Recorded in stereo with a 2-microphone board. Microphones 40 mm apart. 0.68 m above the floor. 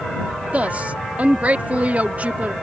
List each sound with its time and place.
0.5 s a woman speaking: 40° right (ahead or behind)